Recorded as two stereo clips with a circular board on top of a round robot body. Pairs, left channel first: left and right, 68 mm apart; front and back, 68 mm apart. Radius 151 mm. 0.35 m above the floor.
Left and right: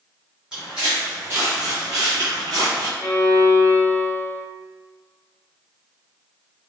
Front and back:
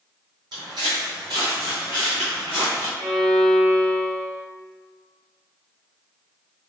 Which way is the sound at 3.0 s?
160° left.